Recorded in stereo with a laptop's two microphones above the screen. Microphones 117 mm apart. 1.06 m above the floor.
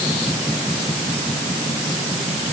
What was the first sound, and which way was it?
Only background noise.